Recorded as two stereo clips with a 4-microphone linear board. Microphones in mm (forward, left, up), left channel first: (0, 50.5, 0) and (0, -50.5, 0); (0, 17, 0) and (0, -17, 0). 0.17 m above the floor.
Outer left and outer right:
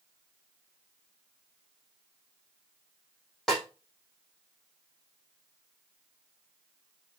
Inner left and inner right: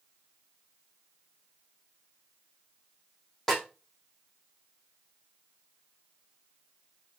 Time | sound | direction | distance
3.5 | a snare drum | 5° left (ahead or behind) | 4 m